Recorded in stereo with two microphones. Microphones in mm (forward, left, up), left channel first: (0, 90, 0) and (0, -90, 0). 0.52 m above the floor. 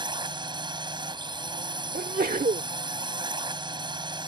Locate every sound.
0.0 s a drone: 25° right (ahead or behind)
1.9 s a sneeze: 55° right (ahead or behind)